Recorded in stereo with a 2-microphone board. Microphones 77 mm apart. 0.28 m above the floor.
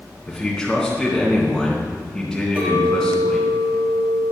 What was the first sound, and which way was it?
A man speaking, 5° left (ahead or behind).